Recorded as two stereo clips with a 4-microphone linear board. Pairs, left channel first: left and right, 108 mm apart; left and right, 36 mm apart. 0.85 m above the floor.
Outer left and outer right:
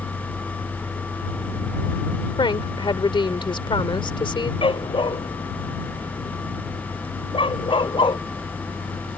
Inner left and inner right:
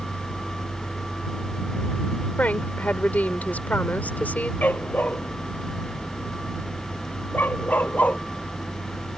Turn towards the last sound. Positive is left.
turn(degrees=50)  # may be behind; listen again after turning